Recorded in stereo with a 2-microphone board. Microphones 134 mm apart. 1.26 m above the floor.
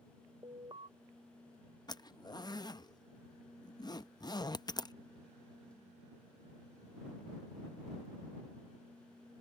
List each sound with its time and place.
0.4 s an alarm: 35° right (ahead or behind)
1.9 s a zipper: 30° left (ahead or behind)